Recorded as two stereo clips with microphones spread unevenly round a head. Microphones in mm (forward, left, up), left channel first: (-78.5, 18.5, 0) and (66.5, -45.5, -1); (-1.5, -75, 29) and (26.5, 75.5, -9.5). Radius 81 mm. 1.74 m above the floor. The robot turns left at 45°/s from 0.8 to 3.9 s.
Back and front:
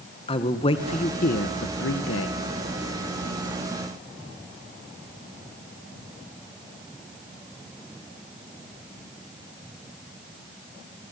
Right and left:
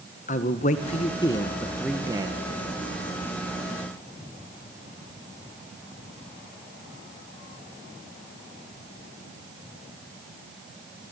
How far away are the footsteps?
No footsteps in this recording.